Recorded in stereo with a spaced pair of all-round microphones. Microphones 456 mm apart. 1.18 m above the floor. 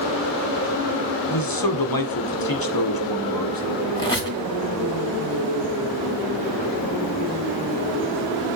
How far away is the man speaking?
About 1.0 m.